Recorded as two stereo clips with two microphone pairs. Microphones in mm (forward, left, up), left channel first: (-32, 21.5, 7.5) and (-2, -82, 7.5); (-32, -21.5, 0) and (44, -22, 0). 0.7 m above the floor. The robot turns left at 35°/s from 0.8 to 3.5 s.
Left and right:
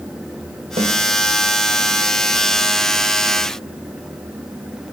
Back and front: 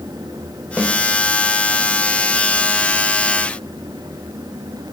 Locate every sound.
0.8 s a snare drum: 75° right, 3.5 m; by 0.9 s 80° right, 3.5 m